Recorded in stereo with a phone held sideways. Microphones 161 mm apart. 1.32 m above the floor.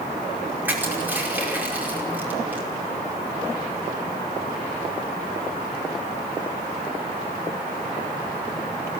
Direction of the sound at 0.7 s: 10° right (ahead or behind).